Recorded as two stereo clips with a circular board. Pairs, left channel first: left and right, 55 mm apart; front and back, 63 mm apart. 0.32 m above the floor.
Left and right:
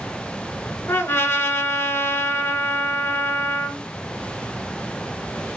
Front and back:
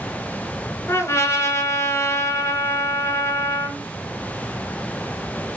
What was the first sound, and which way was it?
A trumpet, 45° left.